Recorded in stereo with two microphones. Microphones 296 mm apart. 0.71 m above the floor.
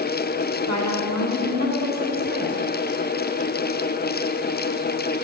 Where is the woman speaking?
70° right (ahead or behind), 2 m; by 2.5 s 35° right (ahead or behind), 2.5 m.